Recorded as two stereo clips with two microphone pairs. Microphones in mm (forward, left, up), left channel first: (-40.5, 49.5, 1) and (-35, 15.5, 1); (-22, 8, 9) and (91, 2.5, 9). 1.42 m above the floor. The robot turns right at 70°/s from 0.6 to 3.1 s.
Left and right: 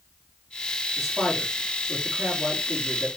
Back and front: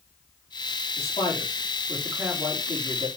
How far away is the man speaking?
About 3.5 m.